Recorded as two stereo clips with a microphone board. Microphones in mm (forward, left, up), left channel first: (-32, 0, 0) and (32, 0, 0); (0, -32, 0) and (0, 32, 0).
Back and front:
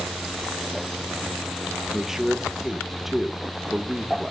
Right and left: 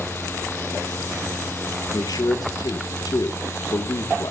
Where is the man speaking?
85° right, 1.5 m.